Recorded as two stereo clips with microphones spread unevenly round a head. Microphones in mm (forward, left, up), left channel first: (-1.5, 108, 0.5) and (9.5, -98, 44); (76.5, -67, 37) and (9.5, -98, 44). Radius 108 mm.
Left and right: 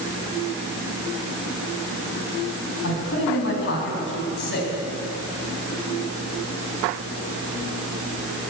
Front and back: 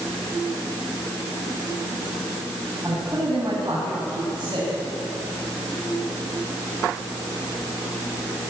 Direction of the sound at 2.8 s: 130° left.